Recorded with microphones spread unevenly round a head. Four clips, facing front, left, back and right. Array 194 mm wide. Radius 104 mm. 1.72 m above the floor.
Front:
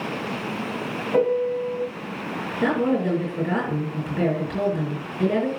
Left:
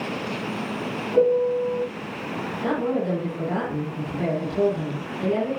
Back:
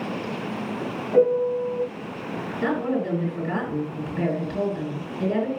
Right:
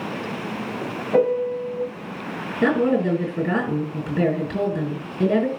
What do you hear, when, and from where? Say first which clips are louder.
1.1 s a piano: left 1 dB, back 2 dB; 95° right, 5 m
2.6 s a woman speaking: right 6 dB, front 3 dB; 85° right, 7.5 m